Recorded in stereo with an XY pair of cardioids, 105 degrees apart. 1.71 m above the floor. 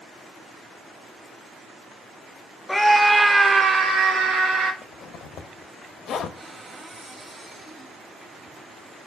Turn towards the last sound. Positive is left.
turn(degrees=-30)